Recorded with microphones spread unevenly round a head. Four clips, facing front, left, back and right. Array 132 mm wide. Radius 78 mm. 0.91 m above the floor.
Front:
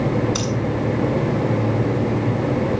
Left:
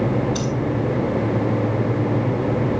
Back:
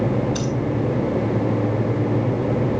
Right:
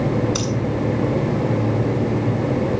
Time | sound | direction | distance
0.3 | breathing | 120° right | 6.5 m